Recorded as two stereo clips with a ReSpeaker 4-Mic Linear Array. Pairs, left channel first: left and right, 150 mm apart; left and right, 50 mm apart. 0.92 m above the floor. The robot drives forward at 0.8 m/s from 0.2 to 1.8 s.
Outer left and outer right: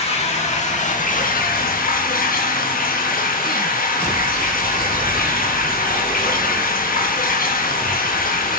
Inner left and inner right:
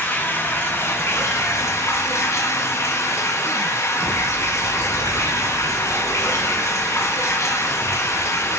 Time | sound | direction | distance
0.0 | running water | 45° left (ahead or behind) | 1.7 m